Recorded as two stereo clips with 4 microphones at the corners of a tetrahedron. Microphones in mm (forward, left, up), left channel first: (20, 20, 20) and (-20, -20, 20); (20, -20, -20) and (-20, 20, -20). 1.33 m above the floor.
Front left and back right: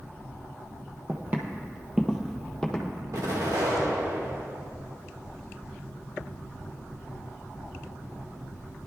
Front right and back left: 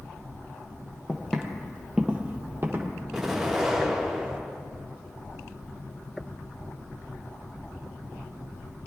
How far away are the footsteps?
About 1.8 m.